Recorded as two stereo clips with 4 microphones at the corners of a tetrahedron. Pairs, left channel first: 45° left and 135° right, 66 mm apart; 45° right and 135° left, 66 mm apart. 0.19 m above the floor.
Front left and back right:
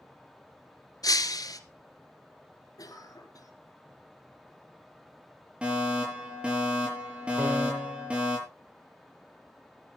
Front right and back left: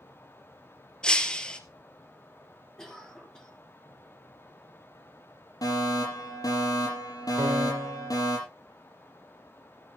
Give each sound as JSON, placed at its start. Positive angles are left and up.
{"t": 1.0, "sound": "breaking glass", "azimuth_deg": 30, "distance_m": 1.5}
{"t": 2.8, "sound": "a cough", "azimuth_deg": 35, "distance_m": 4.0}
{"t": 5.6, "sound": "a fire alarm", "azimuth_deg": -60, "distance_m": 7.5}
{"t": 7.4, "sound": "a piano", "azimuth_deg": 175, "distance_m": 5.0}